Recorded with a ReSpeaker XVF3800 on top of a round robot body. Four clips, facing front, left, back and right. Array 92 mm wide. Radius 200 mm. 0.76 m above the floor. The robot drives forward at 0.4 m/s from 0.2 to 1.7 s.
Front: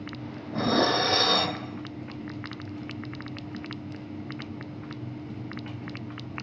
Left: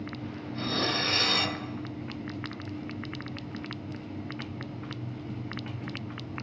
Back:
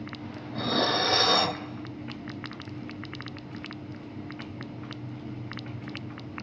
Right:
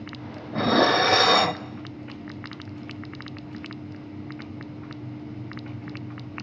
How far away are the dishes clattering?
About 0.8 m.